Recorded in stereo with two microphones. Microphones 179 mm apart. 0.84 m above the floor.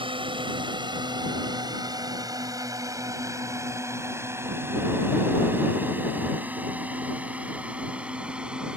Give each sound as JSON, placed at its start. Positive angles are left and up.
{"t": 0.0, "sound": "a drone", "side_deg": -30}